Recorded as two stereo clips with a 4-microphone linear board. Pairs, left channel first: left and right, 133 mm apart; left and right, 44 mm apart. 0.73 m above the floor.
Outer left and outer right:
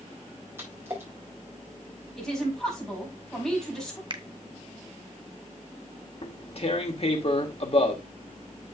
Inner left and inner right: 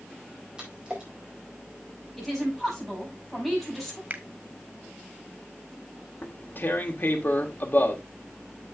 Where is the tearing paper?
50° left (ahead or behind), 1.5 m.